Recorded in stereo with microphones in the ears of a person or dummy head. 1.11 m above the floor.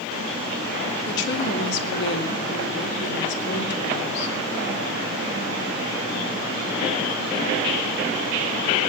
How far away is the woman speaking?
About 2.5 m.